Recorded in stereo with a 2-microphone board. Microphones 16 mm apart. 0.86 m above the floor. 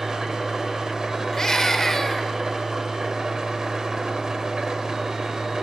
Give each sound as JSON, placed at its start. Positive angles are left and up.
{"t": 0.0, "sound": "an engine running", "side_deg": -45, "distance_m": 2.5}
{"t": 1.3, "sound": "a scream", "side_deg": 30, "distance_m": 3.0}